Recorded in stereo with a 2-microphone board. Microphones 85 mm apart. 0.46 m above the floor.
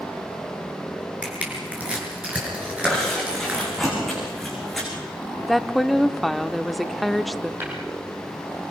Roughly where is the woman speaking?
Centre.